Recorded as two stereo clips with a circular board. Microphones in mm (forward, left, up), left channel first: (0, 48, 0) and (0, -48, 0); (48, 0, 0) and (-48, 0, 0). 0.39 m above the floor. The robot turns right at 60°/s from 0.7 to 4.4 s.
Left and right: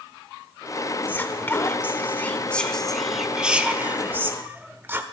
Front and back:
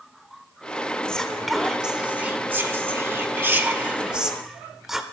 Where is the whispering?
65° left, 0.8 m; by 5.0 s 100° right, 0.8 m.